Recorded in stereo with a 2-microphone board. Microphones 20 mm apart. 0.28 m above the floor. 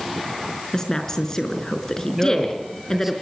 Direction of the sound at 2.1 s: 15° right (ahead or behind).